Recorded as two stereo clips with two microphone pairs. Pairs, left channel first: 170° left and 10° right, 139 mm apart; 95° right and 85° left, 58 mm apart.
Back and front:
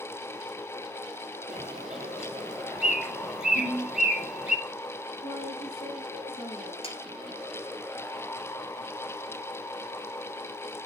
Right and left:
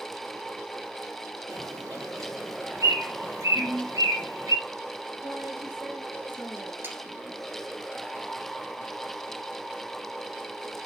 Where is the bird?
75° left, 4 m.